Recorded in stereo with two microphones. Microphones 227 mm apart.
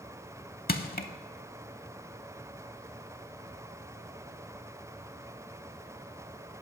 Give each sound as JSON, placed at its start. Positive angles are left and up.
{"t": 0.7, "sound": "crushing", "side_deg": 40, "distance_m": 0.6}